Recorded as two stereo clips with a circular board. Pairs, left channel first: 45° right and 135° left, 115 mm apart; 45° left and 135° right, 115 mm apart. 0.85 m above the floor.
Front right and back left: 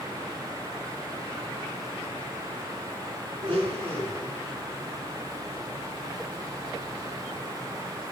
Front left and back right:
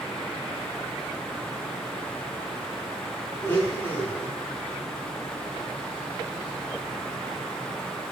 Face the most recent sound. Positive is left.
turn(degrees=110)